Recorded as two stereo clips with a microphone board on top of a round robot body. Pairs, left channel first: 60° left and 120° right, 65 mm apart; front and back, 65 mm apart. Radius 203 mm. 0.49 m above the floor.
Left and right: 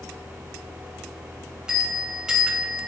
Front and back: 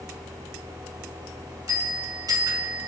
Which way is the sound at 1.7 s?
160° left.